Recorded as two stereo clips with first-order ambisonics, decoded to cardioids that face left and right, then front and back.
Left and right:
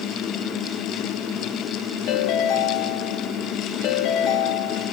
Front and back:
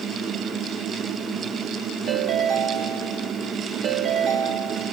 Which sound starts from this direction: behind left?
A ringtone, at 2.1 s.